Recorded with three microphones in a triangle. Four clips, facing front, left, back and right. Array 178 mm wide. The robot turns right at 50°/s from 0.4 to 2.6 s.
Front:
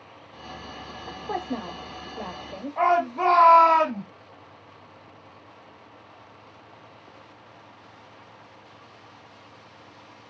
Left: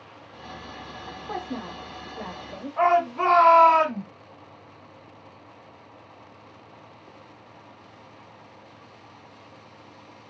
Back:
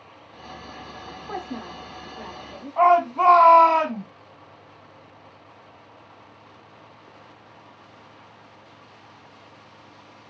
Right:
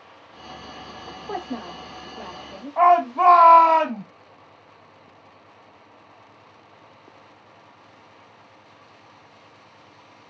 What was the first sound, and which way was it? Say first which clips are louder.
A woman speaking: right 2 dB, front 3 dB; 40° right.